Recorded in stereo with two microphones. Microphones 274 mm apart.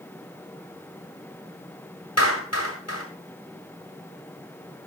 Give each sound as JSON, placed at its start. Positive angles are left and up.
{"t": 2.2, "sound": "a clap", "side_deg": 60, "distance_m": 7.5}